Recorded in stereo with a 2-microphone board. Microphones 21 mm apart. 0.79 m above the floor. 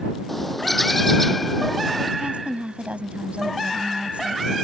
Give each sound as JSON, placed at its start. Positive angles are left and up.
{"t": 0.3, "sound": "a bird", "side_deg": 0}
{"t": 2.2, "sound": "a woman speaking", "side_deg": -80}